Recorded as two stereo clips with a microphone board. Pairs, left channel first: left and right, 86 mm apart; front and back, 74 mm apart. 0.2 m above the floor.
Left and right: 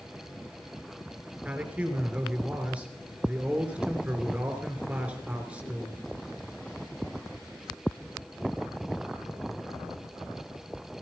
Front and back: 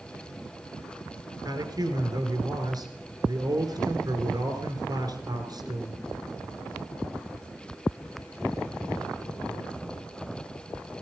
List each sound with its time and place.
1.4 s a man speaking: 165° right, 3 m